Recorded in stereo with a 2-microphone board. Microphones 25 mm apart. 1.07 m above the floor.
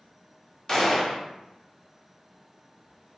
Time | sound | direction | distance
0.7 | a gunshot | 15° left (ahead or behind) | 0.7 m